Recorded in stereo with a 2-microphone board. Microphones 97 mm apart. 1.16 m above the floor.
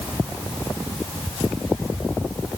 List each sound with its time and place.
Only background noise.